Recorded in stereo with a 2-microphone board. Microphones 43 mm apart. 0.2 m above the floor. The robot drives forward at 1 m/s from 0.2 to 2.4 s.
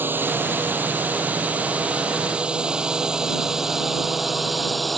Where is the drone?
50° right (ahead or behind); by 5.0 s centre (ahead or behind).